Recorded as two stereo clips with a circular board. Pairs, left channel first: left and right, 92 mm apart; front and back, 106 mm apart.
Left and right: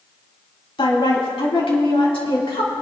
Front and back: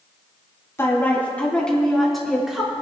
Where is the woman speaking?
65° left, 3 m; by 2.7 s 95° left, 5 m.